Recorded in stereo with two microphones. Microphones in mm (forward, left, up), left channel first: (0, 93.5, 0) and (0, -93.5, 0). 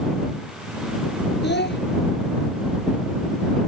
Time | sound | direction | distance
1.4 | a child speaking | 70° left (ahead or behind) | ?